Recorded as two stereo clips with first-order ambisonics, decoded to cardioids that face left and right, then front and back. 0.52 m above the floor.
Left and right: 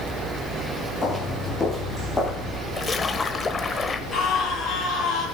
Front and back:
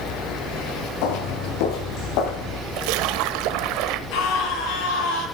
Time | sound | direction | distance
1.0 | footsteps | 10° left | 6 m
2.8 | a splash | 165° left | 1.1 m
4.1 | a scream | 10° left | 8.5 m